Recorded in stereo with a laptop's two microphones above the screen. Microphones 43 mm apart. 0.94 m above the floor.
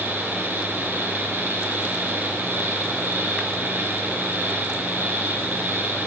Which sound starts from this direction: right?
A fan, at 0.0 s.